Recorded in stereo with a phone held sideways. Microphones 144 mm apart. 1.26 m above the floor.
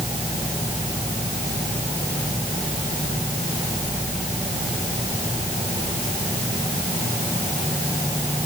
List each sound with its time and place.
Only background noise.